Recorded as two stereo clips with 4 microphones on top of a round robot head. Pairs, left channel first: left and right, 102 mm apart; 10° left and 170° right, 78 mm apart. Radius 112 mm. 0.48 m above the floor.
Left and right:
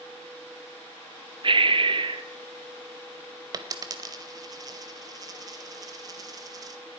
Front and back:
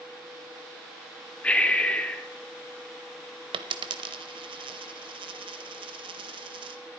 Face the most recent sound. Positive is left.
turn(degrees=-150)